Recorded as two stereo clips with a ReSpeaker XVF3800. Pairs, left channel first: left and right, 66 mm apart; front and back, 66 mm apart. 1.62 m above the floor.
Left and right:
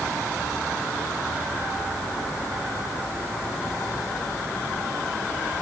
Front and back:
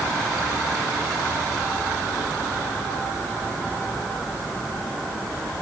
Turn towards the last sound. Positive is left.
No sound to turn to.